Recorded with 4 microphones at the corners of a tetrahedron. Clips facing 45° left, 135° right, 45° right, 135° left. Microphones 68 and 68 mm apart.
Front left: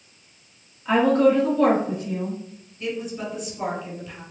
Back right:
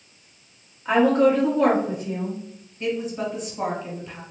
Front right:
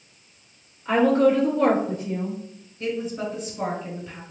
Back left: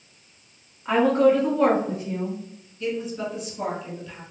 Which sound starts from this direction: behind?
A woman speaking, at 0.8 s.